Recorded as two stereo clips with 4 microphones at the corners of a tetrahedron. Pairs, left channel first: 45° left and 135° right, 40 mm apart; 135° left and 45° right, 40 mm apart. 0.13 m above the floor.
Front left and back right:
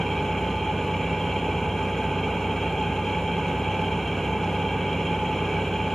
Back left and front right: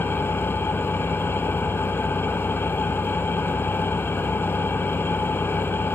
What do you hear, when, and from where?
0.0 s an engine running: 125° left, 1.3 m